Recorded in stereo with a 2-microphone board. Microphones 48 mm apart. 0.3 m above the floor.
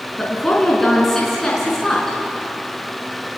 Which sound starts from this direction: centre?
A woman speaking, at 0.2 s.